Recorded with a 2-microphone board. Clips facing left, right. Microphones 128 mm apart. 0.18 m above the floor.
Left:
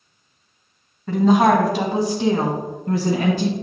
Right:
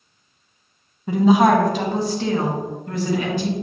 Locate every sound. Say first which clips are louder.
1.1 s a woman speaking: even; 15° right (ahead or behind), 1.1 m; by 3.5 s 45° left (ahead or behind), 1.6 m